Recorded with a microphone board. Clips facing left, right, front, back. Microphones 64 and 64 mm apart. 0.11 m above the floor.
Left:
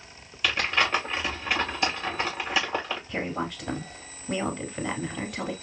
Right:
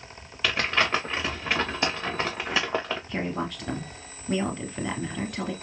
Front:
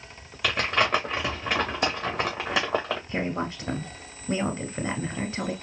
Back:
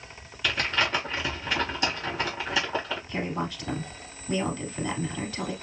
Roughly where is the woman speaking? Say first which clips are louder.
Even, front 1 dB; ahead.